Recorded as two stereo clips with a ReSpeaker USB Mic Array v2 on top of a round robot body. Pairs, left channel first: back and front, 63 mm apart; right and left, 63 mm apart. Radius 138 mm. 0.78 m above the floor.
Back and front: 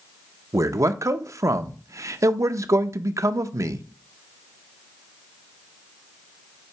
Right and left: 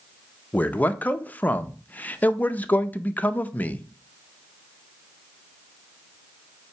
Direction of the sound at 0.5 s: 30° right.